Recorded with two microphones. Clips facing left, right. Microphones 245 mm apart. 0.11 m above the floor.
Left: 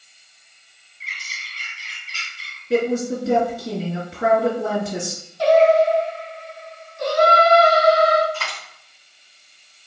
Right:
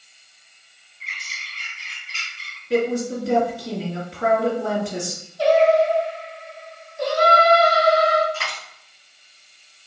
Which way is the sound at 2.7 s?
20° left (ahead or behind).